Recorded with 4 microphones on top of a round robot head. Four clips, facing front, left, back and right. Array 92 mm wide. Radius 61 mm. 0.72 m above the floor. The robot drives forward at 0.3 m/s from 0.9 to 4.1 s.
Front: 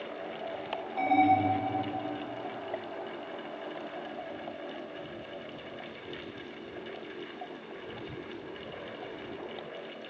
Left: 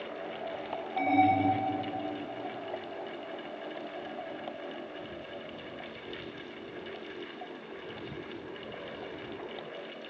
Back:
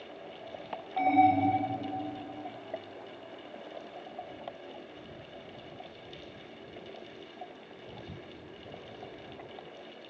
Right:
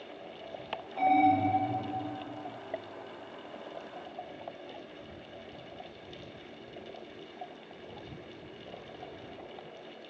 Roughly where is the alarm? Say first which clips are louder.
Right 1 dB, back 1 dB; behind left.